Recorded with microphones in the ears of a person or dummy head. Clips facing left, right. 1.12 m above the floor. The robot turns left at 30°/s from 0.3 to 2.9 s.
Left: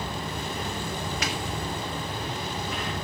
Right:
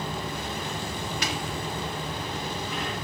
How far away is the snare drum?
About 2 m.